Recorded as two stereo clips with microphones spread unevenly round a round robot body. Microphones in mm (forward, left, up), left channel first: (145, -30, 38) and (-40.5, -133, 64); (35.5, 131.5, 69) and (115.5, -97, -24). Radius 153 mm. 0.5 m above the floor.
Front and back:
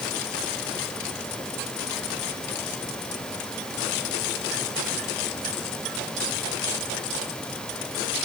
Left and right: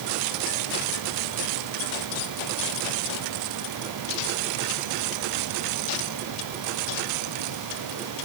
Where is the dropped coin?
I don't hear a dropped coin.